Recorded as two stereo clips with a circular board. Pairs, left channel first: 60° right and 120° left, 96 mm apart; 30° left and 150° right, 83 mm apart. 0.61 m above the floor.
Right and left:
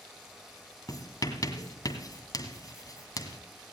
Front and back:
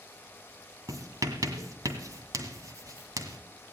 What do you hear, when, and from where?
0.9 s writing: 105° right, 1.9 m